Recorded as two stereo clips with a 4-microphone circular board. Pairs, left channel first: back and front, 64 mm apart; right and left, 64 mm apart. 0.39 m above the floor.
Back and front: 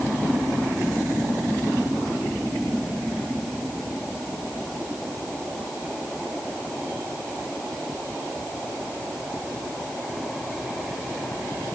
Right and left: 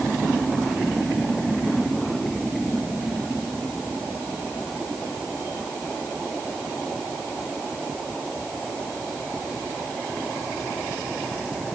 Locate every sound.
Only background noise.